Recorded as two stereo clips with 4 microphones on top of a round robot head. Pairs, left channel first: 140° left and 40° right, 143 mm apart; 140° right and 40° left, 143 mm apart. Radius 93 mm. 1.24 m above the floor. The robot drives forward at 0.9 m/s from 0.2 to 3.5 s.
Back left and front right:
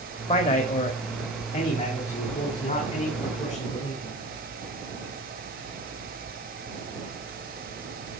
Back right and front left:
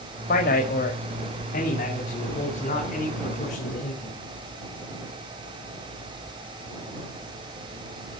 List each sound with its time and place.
0.3 s a man speaking: 170° right, 2 m; by 4.2 s 175° right, 5 m